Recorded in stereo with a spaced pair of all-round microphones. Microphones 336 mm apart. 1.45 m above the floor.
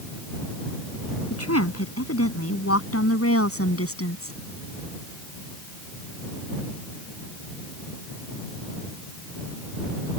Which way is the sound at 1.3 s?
50° left (ahead or behind).